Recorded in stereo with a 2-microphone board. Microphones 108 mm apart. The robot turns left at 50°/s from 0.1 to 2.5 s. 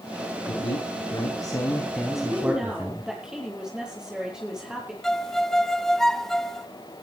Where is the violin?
5° left (ahead or behind), 1.0 m.